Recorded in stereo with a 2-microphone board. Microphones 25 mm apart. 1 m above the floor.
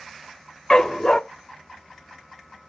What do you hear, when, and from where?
0.7 s a dog barking: 30° left (ahead or behind), 0.6 m